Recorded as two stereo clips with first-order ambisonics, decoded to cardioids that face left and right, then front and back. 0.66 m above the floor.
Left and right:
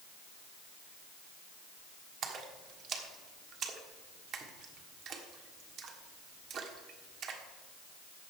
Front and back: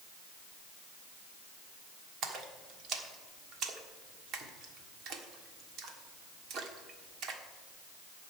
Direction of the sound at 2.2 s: 140° right.